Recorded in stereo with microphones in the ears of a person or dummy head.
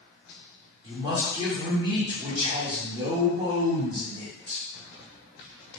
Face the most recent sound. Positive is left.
turn(degrees=-20)  # may be behind; listen again after turning